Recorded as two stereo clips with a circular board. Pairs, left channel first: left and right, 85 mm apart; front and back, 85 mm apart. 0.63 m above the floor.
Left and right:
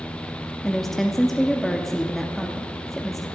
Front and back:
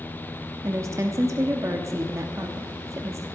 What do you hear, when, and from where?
0.6 s a woman speaking: 175° left, 0.8 m